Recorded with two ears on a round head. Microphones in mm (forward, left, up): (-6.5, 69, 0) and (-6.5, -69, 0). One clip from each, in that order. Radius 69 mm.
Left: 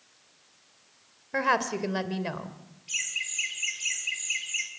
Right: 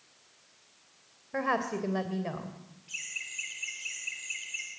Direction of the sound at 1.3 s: 60° left (ahead or behind).